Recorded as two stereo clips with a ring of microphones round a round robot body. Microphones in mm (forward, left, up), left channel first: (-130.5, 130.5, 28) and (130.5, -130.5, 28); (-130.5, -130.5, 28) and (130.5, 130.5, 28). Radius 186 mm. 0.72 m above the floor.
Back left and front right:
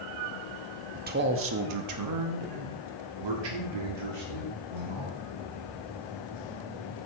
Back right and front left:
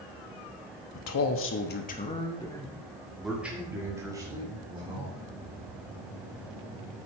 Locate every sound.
0.9 s a man speaking: 110° right, 1.1 m; by 5.3 s 30° right, 3 m